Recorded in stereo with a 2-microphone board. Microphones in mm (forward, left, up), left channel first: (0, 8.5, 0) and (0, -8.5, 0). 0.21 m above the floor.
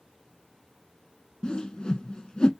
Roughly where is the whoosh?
Left.